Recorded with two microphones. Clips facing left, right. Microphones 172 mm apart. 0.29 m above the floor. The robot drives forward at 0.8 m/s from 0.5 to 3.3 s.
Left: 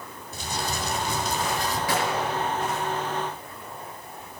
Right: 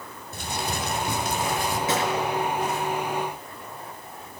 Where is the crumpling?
60° right (ahead or behind), 2.5 m; by 1.8 s 55° right (ahead or behind), 3 m.